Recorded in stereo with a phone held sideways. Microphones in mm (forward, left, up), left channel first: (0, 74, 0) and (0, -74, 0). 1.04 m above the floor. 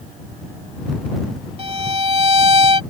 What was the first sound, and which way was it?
A violin, 40° right (ahead or behind).